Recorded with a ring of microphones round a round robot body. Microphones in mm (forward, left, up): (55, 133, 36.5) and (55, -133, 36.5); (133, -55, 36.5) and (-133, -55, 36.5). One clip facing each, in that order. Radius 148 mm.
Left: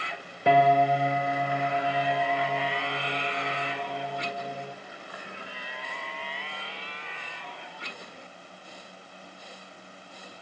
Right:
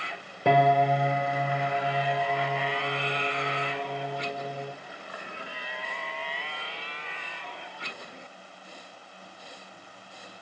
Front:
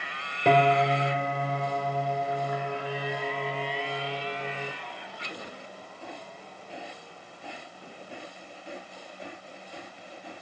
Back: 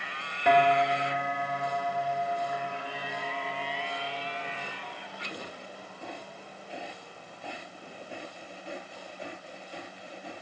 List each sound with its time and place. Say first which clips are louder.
0.5 s a piano: left 1 dB, front 2 dB; 55° right, 2.0 m